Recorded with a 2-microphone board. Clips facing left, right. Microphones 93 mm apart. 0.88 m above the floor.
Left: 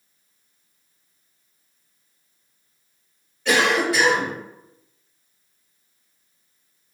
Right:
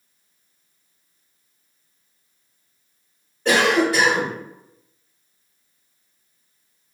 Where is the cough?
40° right (ahead or behind), 1.5 m.